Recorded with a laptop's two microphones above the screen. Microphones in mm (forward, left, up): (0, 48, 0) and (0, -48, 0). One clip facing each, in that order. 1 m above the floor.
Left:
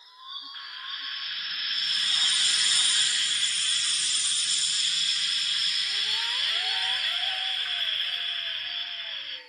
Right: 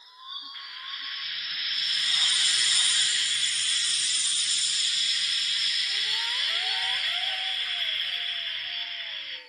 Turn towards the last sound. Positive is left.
turn(degrees=45)  # may be behind; listen again after turning